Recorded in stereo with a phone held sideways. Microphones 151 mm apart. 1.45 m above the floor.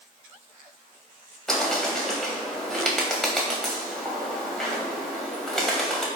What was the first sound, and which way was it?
A bird, 5° left (ahead or behind).